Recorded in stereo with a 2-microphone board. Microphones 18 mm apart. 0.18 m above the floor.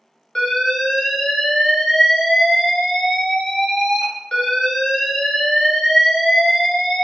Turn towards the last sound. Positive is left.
turn(degrees=55)  # may be behind; listen again after turning